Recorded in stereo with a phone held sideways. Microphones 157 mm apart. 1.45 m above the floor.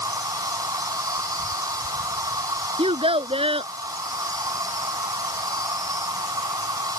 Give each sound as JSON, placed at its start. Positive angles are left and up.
{"t": 0.0, "sound": "an insect", "side_deg": -25}
{"t": 2.8, "sound": "a child speaking", "side_deg": -35}